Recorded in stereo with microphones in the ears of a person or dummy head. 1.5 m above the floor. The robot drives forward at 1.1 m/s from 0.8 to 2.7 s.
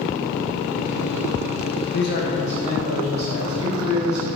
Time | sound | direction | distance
1.9 | a man speaking | 55° left (ahead or behind) | 0.6 m